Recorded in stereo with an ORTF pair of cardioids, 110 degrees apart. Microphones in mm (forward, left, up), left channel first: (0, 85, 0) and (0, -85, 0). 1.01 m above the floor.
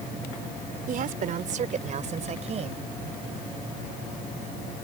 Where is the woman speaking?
60° right; by 2.9 s 40° right.